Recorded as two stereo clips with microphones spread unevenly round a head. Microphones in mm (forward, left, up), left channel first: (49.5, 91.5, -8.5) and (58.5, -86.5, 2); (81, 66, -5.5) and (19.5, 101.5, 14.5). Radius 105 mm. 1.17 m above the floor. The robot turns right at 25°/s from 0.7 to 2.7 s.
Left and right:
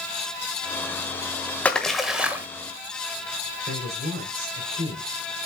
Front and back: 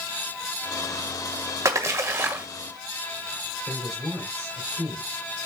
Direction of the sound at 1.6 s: Straight behind.